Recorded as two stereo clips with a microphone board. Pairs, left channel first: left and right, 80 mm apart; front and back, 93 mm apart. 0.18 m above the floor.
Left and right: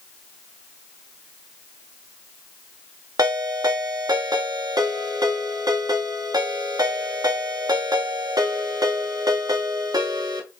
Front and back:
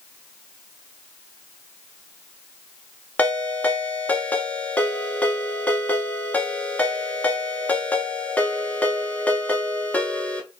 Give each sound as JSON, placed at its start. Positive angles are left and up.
{"t": 3.2, "sound": "a ringtone", "azimuth_deg": -70, "distance_m": 1.1}